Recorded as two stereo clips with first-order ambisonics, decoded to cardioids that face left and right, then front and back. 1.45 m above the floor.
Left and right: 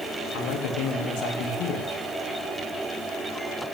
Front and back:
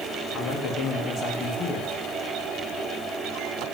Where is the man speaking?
60° left, 1.8 m.